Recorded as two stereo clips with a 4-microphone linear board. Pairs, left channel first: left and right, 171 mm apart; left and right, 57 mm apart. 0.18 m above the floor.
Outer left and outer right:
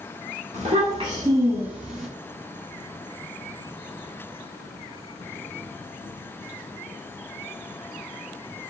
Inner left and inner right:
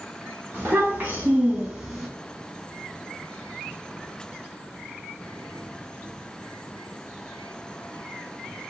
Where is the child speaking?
45° right (ahead or behind), 1.2 m; by 2.1 s centre (ahead or behind), 1.0 m.